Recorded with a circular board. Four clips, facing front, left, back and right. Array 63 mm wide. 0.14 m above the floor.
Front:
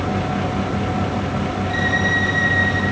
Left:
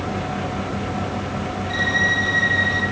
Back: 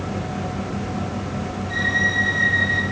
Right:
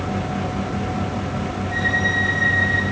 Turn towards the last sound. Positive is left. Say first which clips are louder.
# left 1 dB, front 1 dB
turn(degrees=65)